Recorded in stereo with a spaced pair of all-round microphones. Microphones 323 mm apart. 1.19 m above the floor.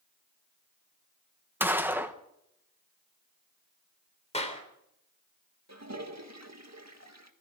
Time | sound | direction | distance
1.6 | a gunshot | 5° right (ahead or behind) | 1.2 m
4.3 | a clap | 20° left (ahead or behind) | 3.5 m
5.7 | a toilet flushing | 55° right (ahead or behind) | 1.8 m